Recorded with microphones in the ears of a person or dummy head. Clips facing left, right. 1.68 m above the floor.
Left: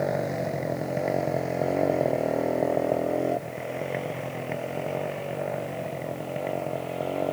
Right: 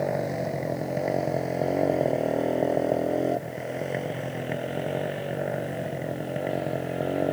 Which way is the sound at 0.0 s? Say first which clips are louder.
Even; centre (ahead or behind).